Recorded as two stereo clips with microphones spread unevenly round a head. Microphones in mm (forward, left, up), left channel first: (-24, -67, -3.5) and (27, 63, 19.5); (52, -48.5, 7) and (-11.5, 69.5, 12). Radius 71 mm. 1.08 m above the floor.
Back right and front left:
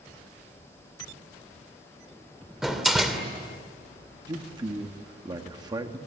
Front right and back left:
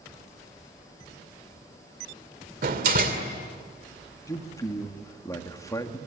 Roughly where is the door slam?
Behind left.